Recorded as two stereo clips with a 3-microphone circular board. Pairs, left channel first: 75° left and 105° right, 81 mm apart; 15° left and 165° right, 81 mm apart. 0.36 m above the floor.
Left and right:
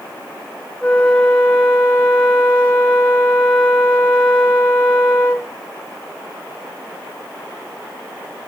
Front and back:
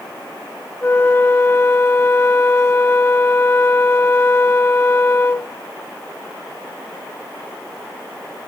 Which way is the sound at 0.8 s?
20° left.